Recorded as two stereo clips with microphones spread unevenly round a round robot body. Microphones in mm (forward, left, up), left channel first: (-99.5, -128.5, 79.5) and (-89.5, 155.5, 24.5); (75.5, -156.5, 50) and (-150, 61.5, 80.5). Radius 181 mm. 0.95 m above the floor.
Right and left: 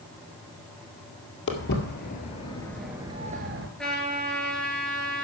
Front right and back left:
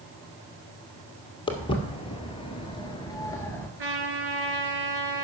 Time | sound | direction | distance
1.5 | footsteps | 120° right | 1.6 m
3.8 | a trumpet | 175° right | 3 m